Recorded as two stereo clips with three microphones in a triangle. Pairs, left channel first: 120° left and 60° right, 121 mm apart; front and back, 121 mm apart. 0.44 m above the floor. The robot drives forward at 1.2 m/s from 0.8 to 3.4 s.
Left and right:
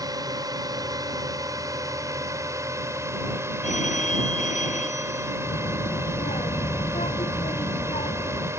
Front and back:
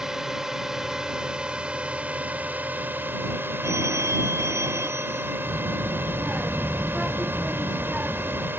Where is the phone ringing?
115° left.